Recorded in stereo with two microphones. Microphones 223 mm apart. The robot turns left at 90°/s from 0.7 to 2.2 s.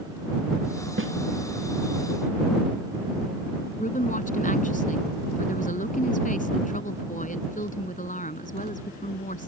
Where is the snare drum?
65° right (ahead or behind); by 1.1 s 75° right (ahead or behind).